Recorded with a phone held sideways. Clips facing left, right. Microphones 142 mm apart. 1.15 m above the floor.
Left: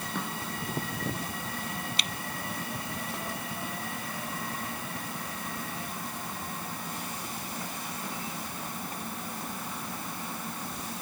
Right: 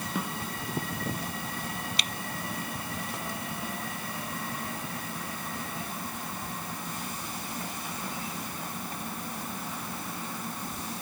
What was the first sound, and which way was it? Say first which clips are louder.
A snare drum: right 2 dB; 5° right (ahead or behind).